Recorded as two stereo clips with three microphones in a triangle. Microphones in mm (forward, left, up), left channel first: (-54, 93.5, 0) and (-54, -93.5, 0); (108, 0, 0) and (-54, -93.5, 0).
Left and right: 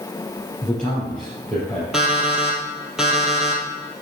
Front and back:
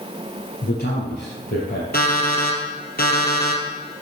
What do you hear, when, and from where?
0.6 s a man speaking: 5° left, 3.5 m
1.9 s an alarm clock: 5° right, 2.5 m